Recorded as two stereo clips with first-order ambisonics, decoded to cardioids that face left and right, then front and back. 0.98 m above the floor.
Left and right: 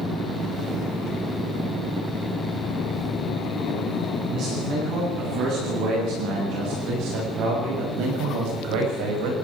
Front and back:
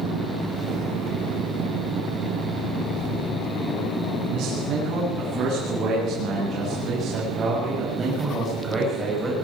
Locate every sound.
4.3 s a man speaking: 135° right, 9.5 m; by 9.3 s 100° right, 6.5 m